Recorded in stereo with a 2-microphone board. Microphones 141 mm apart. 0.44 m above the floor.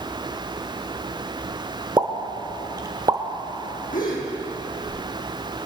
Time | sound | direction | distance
2.0 | a pop | 30° right (ahead or behind) | 1.0 m
3.9 | a gasp | 80° left | 3.5 m